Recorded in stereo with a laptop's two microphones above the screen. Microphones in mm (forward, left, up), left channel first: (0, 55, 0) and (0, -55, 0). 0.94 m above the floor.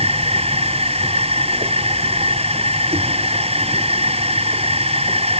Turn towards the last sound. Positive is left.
turn(degrees=-65)  # may be behind; listen again after turning